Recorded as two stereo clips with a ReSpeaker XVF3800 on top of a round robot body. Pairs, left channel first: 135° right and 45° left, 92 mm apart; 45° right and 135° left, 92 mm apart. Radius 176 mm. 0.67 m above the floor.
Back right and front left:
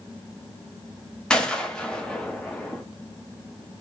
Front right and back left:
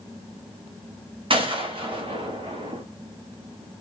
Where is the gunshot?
145° left, 1.8 m.